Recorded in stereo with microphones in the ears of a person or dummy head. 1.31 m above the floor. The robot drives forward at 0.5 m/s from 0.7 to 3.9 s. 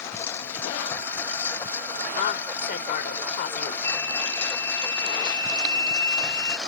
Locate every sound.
0.0 s a lawn mower: 10° left (ahead or behind); by 6.7 s centre (ahead or behind)
2.2 s a woman speaking: 55° left (ahead or behind); by 3.7 s 45° left (ahead or behind)
3.8 s a flute: 15° left (ahead or behind)